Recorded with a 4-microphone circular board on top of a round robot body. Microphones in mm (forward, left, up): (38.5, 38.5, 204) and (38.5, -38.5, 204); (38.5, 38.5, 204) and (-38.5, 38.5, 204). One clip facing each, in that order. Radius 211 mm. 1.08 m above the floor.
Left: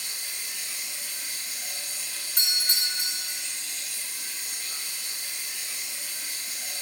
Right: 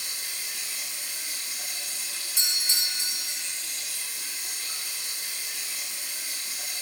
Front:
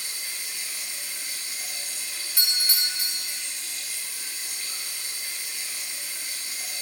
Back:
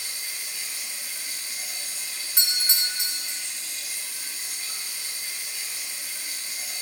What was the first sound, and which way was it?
Running water, 110° right.